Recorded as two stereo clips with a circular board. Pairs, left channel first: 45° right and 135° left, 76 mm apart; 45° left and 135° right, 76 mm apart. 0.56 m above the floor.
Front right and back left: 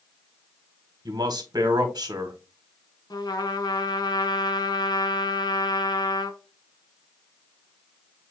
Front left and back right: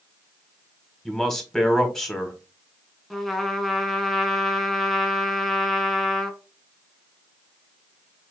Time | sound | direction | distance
1.1 | a man speaking | 130° left | 1.4 m
3.1 | a trumpet | 45° right | 0.9 m